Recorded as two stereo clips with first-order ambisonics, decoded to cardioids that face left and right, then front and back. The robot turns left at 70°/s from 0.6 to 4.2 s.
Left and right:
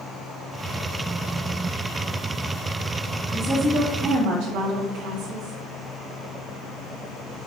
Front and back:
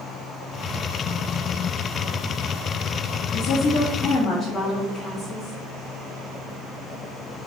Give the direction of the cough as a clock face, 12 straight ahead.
I don't hear a cough.